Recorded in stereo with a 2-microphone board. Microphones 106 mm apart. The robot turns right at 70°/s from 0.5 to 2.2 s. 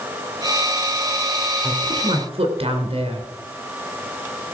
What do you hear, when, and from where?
1.6 s a woman speaking: 150° right, 3 m; by 3.3 s 110° right, 3 m